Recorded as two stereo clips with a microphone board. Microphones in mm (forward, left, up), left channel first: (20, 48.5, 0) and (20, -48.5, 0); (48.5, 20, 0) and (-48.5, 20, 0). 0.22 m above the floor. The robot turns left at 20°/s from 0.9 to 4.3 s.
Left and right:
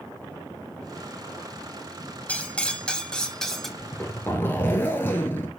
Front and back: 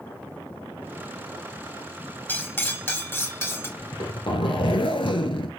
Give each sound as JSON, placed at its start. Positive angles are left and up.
{"t": 2.3, "sound": "cutlery clinking", "azimuth_deg": 35, "distance_m": 0.6}
{"t": 3.8, "sound": "a zipper", "azimuth_deg": 35, "distance_m": 0.9}